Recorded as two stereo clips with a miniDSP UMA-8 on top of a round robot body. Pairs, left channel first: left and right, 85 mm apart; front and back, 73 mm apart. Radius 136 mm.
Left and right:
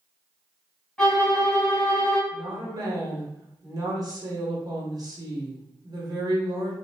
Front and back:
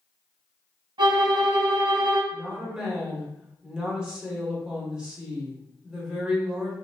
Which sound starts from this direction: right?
A woman speaking, at 2.3 s.